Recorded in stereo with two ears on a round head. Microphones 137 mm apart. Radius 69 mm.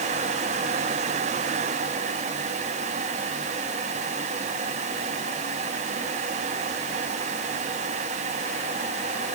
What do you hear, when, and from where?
Only background noise.